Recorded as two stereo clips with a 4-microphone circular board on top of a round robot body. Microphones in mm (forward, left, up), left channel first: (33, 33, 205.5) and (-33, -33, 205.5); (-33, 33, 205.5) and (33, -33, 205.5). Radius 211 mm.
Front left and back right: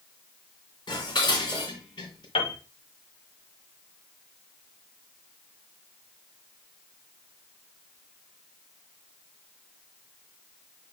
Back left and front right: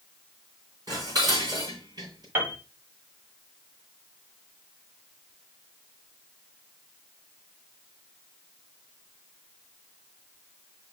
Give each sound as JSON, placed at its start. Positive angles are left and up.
{"t": 0.9, "sound": "dishes clattering", "azimuth_deg": 5, "distance_m": 4.0}
{"t": 2.4, "sound": "a piano", "azimuth_deg": 20, "distance_m": 1.2}